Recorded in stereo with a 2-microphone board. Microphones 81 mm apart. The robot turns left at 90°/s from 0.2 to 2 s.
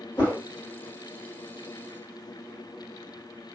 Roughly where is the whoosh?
Left.